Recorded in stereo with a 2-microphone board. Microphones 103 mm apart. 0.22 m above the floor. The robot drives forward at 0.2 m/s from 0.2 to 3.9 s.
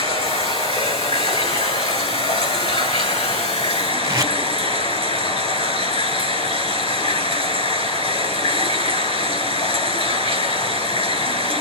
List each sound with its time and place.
0.0 s running water: 60° left (ahead or behind), 3.5 m; by 11.6 s 70° left (ahead or behind), 3.5 m
4.0 s tape being pulled: 30° right (ahead or behind), 2.5 m